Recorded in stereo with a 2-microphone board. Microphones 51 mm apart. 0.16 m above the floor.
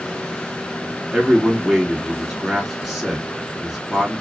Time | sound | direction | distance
1.1 | a man speaking | 5° right (ahead or behind) | 1.7 m